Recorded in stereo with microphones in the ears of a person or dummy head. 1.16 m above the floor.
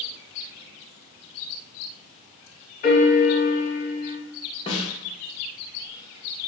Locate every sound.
2.8 s a piano: 40° left (ahead or behind), 1.2 m
4.7 s a snare drum: 20° left (ahead or behind), 0.6 m